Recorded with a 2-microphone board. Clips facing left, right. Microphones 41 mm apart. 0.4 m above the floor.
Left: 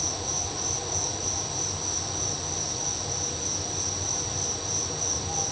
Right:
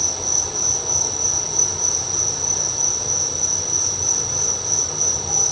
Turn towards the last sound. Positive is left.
turn(degrees=-80)